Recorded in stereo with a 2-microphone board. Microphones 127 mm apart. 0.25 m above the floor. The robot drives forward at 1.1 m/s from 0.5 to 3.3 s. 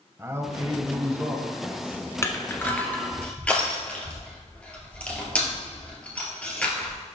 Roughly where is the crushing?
Left.